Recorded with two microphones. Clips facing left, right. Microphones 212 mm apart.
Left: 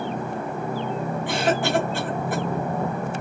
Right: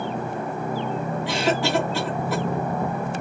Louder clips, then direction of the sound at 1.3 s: Even; 50° left (ahead or behind).